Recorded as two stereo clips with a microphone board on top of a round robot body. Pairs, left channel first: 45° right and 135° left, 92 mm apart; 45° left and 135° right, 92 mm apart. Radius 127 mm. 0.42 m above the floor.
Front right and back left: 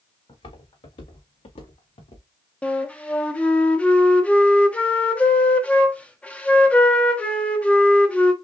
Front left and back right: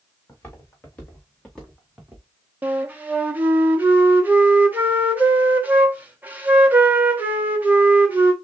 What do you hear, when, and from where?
0.3 s footsteps: 20° right, 2.5 m; by 2.2 s 55° right, 1.8 m
2.6 s a flute: 100° right, 1.4 m